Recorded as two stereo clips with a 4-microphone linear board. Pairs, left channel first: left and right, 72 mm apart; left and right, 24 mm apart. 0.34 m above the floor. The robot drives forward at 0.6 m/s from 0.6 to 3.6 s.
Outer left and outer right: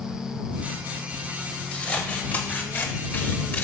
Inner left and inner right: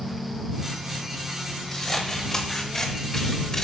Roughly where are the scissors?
Left.